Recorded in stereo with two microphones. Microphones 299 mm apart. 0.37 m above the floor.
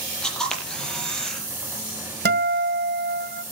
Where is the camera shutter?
Centre (ahead or behind), 4.5 m.